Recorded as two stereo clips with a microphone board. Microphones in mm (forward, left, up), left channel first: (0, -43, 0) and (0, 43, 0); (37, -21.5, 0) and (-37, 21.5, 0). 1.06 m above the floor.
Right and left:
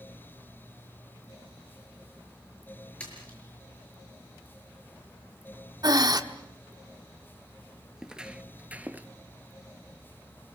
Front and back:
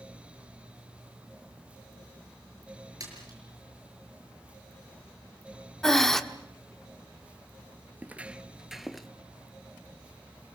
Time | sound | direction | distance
3.0 | a splash | 165° right | 6.5 m
5.8 | breathing | 55° left | 1.2 m
8.0 | footsteps | 160° left | 1.0 m